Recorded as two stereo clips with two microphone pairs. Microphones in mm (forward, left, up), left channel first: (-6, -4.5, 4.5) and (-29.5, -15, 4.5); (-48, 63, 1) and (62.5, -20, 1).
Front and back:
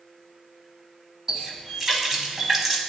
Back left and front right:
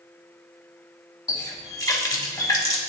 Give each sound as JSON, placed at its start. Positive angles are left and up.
{"t": 1.3, "sound": "a running tap", "azimuth_deg": 160, "distance_m": 0.7}